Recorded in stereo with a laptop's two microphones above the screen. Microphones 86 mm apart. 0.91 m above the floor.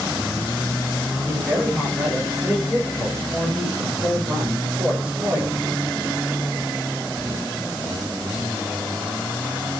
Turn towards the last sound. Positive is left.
turn(degrees=-20)  # may be behind; listen again after turning